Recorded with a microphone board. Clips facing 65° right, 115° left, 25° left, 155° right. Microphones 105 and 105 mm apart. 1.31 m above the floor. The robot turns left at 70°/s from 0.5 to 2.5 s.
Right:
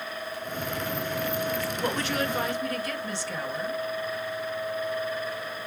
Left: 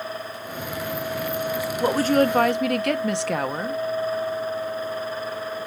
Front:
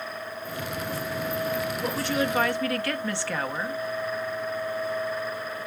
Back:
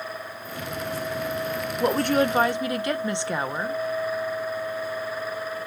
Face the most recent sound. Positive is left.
turn(degrees=130)